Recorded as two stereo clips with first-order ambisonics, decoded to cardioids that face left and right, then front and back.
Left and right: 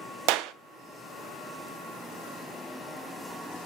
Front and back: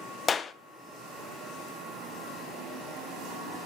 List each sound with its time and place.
0.3 s a clap: 70° right, 0.5 m